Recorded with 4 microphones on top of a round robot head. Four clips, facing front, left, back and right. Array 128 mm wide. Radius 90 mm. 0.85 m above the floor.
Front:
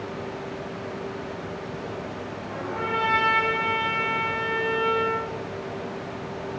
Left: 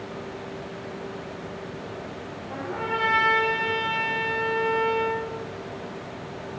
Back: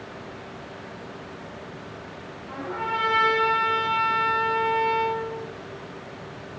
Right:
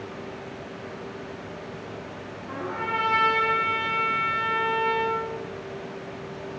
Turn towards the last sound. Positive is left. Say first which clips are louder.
# even, back 1 dB
turn(degrees=-115)